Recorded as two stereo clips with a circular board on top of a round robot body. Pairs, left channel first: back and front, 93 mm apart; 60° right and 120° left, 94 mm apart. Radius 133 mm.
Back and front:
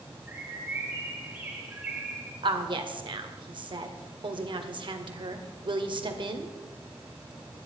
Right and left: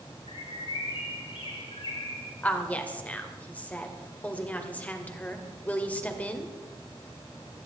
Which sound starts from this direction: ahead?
A woman speaking, at 2.4 s.